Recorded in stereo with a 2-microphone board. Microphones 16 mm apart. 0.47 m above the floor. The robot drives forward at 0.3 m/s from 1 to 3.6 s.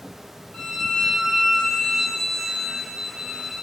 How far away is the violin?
About 0.6 m.